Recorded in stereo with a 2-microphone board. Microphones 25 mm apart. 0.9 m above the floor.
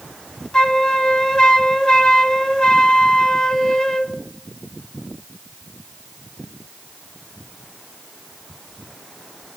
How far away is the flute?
About 0.9 m.